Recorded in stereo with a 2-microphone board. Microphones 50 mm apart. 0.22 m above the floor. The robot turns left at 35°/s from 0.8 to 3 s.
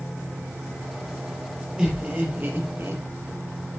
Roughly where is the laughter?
Ahead.